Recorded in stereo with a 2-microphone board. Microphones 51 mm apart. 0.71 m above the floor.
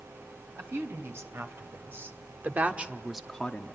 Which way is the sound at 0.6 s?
65° right (ahead or behind).